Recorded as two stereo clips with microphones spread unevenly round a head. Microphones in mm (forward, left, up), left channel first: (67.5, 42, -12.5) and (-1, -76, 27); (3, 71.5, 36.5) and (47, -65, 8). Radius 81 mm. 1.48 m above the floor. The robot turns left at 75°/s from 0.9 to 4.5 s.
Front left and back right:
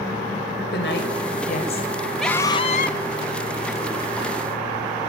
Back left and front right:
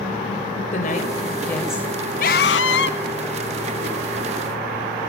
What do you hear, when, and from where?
0.7 s a woman speaking: 75° left, 6 m; by 1.9 s straight ahead, 6 m
2.2 s a scream: 150° left, 2 m; by 3.0 s 90° left, 2 m